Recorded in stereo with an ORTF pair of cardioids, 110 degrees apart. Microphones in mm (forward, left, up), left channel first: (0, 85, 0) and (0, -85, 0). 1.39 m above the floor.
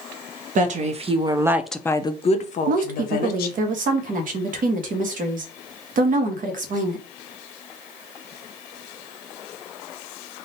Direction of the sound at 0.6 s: 50° right.